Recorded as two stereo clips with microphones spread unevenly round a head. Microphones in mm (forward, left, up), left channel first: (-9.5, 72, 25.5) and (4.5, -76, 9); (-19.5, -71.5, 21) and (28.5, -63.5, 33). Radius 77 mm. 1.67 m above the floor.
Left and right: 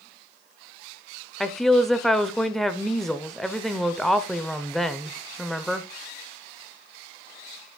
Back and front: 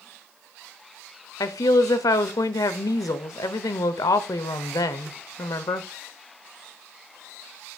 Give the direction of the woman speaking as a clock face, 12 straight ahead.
6 o'clock.